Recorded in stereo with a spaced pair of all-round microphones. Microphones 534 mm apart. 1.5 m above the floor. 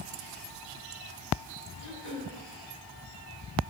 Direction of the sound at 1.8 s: 65° left (ahead or behind).